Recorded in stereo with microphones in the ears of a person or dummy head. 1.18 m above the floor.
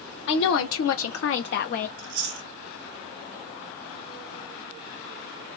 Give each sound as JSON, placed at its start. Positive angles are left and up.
{"t": 0.3, "sound": "a woman speaking", "side_deg": 65, "distance_m": 1.0}
{"t": 2.0, "sound": "chewing", "side_deg": -60, "distance_m": 0.7}